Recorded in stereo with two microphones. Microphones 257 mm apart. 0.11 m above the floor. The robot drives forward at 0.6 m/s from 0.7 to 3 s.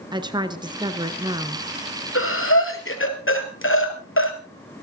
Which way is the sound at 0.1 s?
15° right (ahead or behind).